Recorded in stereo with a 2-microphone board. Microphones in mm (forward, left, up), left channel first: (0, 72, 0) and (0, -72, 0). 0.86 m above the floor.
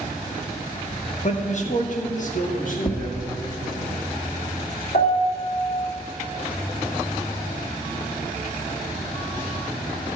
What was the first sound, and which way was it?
A man speaking, 45° left (ahead or behind).